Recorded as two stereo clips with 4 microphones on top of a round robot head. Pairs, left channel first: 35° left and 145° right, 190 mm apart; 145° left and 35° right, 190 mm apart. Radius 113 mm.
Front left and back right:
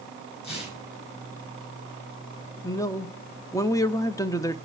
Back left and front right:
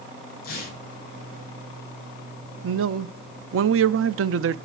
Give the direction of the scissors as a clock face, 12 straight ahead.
No scissors in this recording.